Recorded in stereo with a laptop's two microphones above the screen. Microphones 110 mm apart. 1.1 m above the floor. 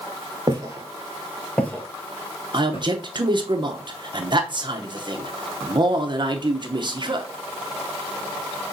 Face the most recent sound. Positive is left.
turn(degrees=-45)  # may be behind; listen again after turning